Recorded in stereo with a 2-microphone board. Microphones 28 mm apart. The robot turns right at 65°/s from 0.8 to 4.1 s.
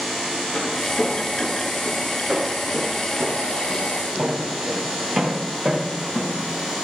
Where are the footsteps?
80° left, 5.5 m; by 6.4 s 15° right (ahead or behind), 4 m.